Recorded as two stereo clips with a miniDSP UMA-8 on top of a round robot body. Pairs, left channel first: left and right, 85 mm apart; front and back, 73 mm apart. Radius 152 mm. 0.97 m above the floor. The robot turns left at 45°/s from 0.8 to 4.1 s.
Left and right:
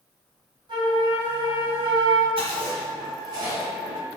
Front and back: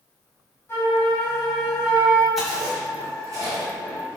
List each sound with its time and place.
0.7 s a flute: 60° right, 2.5 m; by 2.3 s 125° right, 2.5 m
2.4 s chewing: 90° right, 1.9 m; by 4.2 s 165° right, 1.9 m